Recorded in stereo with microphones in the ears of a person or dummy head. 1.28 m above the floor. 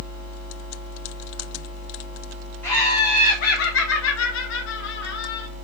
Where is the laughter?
5° left (ahead or behind), 0.8 m; by 5.5 s 70° left (ahead or behind), 1.5 m.